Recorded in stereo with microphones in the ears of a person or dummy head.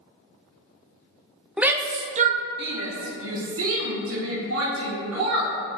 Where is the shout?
Centre (ahead or behind), 0.6 m; by 5.5 s 75° right (ahead or behind), 2.0 m.